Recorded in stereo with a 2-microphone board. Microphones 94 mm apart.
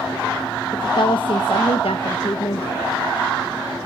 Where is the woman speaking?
55° left (ahead or behind), 1.3 m; by 2.8 s 70° left (ahead or behind), 1.3 m.